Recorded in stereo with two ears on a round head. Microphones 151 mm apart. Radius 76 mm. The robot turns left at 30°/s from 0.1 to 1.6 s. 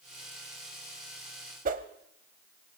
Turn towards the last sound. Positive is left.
turn(degrees=-50)  # may be behind; listen again after turning